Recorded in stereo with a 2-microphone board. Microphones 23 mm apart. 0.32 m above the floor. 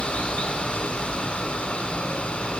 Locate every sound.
0.0 s running water: 70° left (ahead or behind), 2.5 m